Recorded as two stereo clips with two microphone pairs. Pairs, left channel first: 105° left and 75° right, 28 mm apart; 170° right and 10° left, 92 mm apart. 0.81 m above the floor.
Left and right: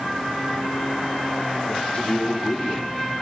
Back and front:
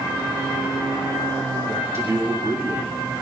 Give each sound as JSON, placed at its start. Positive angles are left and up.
{"t": 1.7, "sound": "a man speaking", "azimuth_deg": 65, "distance_m": 2.5}